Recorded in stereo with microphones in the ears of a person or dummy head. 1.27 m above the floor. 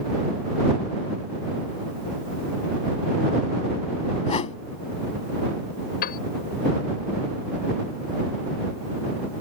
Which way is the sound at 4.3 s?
35° left (ahead or behind).